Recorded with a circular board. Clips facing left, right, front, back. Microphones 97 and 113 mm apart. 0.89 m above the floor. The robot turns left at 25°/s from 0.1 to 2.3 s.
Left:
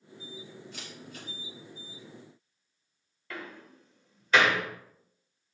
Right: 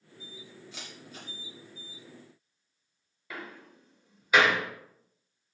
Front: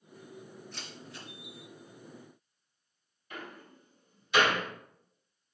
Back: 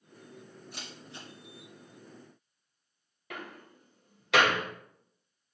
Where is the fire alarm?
No fire alarm in this recording.